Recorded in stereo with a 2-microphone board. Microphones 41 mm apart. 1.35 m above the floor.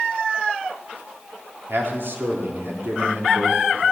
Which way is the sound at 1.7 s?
65° right (ahead or behind).